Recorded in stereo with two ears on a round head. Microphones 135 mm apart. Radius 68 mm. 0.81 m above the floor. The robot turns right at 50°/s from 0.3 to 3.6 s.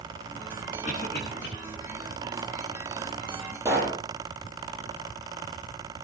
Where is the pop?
20° right (ahead or behind), 8 m.